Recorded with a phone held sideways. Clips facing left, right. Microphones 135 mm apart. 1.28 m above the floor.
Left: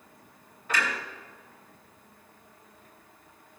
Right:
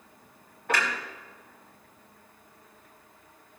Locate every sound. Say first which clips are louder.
0.7 s a clunk: right 2 dB; 65° right (ahead or behind), 2 m